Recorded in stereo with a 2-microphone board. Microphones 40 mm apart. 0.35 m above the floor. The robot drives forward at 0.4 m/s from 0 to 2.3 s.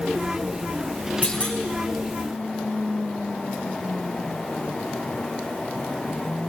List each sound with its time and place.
1.2 s a clunk: 30° left (ahead or behind), 4.5 m